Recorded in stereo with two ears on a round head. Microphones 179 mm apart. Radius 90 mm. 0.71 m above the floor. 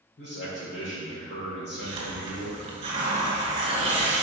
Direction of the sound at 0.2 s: 55° left (ahead or behind).